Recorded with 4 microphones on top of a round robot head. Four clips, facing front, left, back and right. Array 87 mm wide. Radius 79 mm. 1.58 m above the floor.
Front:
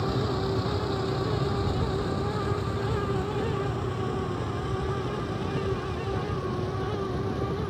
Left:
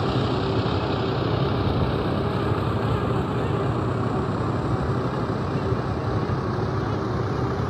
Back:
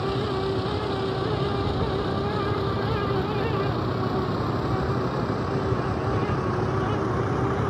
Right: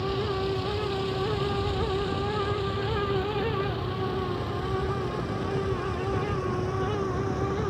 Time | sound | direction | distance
0.0 | a vehicle | 95° left | ?